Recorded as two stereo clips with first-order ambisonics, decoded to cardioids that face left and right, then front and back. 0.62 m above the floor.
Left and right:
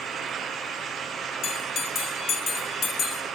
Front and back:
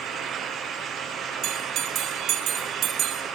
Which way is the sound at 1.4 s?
135° left.